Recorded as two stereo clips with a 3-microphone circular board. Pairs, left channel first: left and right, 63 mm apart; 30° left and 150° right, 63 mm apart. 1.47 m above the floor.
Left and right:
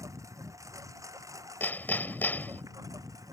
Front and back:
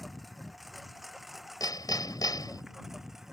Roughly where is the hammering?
Ahead left.